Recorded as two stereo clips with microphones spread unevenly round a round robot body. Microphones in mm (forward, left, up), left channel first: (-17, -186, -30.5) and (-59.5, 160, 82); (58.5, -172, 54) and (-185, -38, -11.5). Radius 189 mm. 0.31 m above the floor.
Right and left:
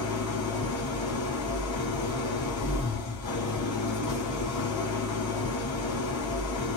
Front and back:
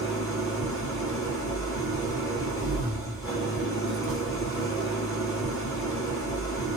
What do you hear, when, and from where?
0.0 s an engine running: 115° right, 3.5 m